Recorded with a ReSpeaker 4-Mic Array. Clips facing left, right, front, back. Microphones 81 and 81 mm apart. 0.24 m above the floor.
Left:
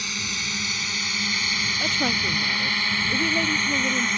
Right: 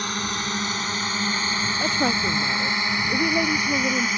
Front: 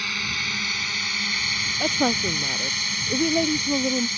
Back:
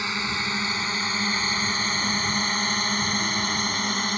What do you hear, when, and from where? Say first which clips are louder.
0.0 s a drone: right 5 dB, back 2 dB; 120° right; by 4.2 s 175° right
1.8 s a woman speaking: right 3 dB, front 4 dB; 15° right